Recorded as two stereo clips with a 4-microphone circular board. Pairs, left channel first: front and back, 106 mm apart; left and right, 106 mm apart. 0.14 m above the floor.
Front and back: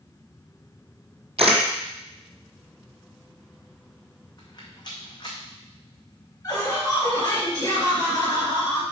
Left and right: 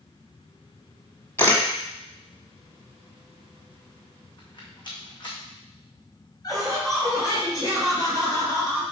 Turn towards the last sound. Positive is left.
turn(degrees=50)